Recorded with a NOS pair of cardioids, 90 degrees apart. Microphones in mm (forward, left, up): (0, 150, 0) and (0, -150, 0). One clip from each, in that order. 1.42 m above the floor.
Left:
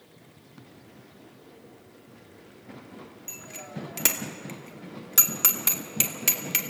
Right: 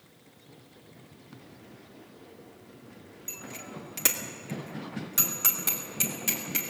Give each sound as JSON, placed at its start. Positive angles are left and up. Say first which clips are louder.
{"t": 3.3, "sound": "a bicycle bell", "louder": "right 1 dB", "azimuth_deg": 5, "distance_m": 2.5}